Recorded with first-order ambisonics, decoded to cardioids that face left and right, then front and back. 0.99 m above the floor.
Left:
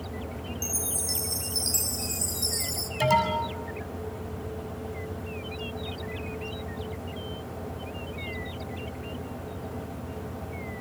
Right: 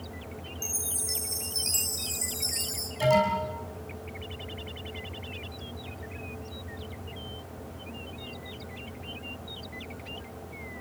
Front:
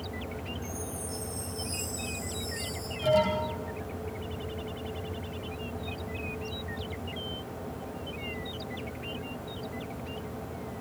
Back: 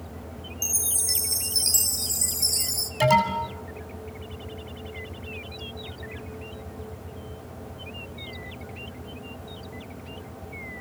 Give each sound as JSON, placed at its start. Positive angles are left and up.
{"t": 0.6, "sound": "a chime", "azimuth_deg": 170, "distance_m": 2.5}
{"t": 3.0, "sound": "an alarm", "azimuth_deg": 160, "distance_m": 6.5}